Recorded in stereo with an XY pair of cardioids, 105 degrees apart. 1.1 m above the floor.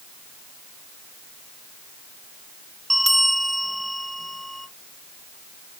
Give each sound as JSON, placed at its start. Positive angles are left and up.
{"t": 2.9, "sound": "a bell", "azimuth_deg": -5, "distance_m": 1.0}